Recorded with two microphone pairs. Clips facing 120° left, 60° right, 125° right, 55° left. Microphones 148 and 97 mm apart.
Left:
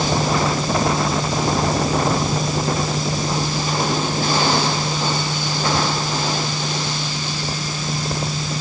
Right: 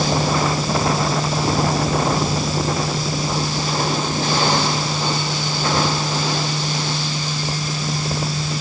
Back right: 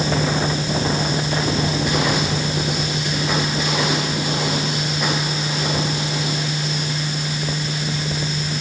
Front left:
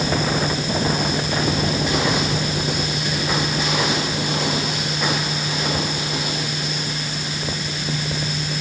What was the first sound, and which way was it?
Only background noise.